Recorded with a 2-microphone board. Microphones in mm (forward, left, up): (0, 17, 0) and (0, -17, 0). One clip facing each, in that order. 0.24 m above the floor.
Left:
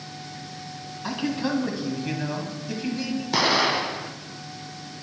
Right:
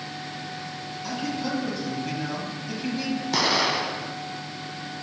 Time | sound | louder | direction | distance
1.0 | a man speaking | left 3 dB | 35° left (ahead or behind) | 1.6 m
3.3 | an explosion | left 2 dB | 5° left (ahead or behind) | 0.5 m